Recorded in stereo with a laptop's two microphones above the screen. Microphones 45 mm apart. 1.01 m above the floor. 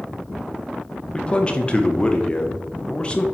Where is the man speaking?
25° left (ahead or behind), 0.8 m.